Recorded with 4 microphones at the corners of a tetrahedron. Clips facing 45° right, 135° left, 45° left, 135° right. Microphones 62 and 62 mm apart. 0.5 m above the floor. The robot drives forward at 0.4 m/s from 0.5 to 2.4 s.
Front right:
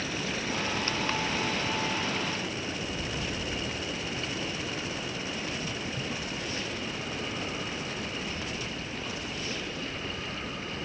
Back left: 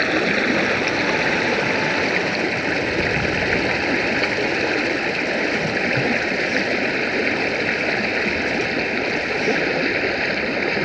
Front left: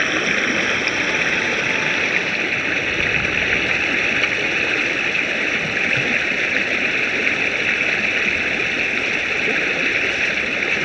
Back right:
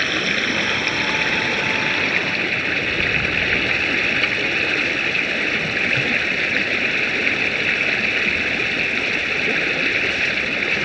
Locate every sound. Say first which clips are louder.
0.0 s running water: back left 14 dB, front left 2 dB; 120° left; by 10.8 s 130° left